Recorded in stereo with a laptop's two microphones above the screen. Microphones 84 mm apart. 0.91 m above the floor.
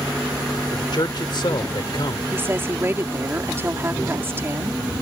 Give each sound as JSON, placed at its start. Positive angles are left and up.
{"t": 0.7, "sound": "a man speaking", "side_deg": 65}
{"t": 2.3, "sound": "a woman speaking", "side_deg": -25}